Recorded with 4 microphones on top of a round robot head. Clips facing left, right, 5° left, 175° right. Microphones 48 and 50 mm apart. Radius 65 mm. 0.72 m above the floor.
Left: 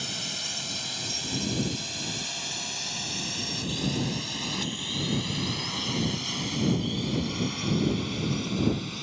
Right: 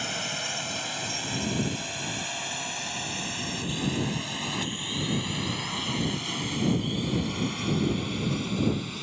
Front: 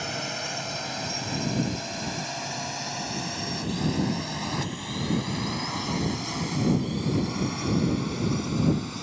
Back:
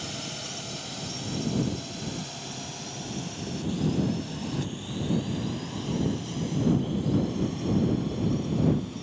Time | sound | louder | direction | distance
0.0 | a drone | right 4 dB, front 5 dB | 35° right | ?